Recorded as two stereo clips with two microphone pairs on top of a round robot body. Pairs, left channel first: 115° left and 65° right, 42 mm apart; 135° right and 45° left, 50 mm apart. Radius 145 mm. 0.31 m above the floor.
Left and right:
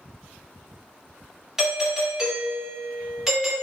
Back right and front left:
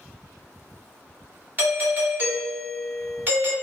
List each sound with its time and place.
1.6 s a doorbell: 5° left, 1.6 m